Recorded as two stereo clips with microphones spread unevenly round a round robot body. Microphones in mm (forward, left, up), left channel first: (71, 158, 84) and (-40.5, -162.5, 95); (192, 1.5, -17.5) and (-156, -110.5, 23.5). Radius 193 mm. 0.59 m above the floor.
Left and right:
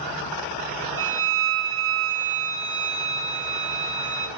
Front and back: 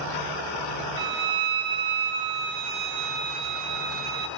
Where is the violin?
165° right, 3.5 m.